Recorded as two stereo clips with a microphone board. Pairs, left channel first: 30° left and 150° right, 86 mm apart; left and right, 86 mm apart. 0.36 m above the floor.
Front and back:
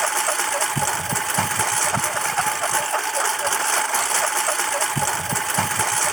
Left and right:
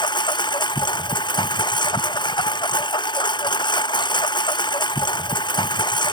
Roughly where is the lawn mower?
Behind left.